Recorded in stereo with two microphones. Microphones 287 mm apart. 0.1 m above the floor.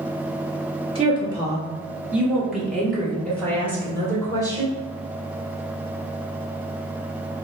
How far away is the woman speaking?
About 2.0 m.